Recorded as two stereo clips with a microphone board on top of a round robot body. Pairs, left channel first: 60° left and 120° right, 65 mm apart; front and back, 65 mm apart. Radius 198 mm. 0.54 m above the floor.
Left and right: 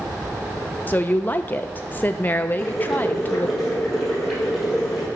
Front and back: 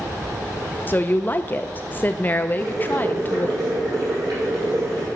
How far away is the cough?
No cough in this recording.